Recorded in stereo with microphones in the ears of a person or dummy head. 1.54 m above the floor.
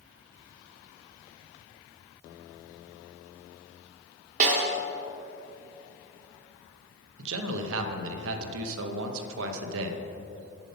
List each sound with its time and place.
4.4 s a snare drum: 35° right (ahead or behind), 1.0 m
7.2 s a man speaking: 75° right (ahead or behind), 0.7 m